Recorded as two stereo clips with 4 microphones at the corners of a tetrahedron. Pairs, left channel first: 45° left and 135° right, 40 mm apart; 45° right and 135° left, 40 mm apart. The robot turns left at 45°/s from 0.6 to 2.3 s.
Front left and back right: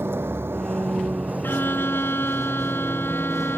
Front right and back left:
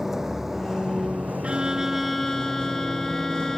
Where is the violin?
75° left; by 3.6 s 35° left.